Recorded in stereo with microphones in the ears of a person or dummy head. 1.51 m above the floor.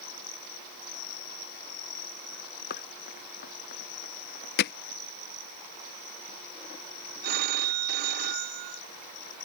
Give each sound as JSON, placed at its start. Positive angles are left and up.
{"t": 2.7, "sound": "running footsteps", "side_deg": 60}
{"t": 4.6, "sound": "hammering", "side_deg": 55}
{"t": 7.2, "sound": "a phone ringing", "side_deg": -50}